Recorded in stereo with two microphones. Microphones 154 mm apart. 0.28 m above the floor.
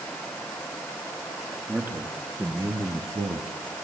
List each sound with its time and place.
1.7 s a man speaking: 10° right (ahead or behind), 4 m; by 3.5 s 25° right (ahead or behind), 2 m